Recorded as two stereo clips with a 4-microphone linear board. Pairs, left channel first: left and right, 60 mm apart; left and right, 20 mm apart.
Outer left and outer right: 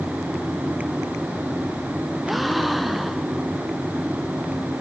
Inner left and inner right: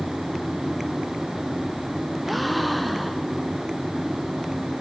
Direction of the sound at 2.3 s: Centre (ahead or behind).